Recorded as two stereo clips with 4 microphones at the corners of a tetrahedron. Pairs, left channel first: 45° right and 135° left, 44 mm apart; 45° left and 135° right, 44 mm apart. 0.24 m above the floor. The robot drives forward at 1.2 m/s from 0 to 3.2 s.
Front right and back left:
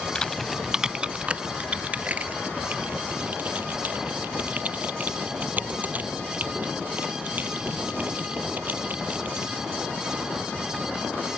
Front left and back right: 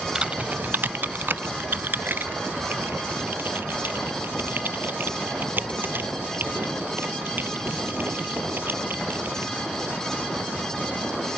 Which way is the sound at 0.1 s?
85° right.